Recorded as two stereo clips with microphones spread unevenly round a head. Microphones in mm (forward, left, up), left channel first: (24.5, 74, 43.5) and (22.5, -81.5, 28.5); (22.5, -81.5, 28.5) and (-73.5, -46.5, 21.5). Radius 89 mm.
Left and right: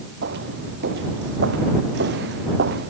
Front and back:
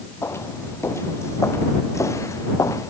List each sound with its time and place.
0.2 s footsteps: 85° right; by 2.9 s 80° right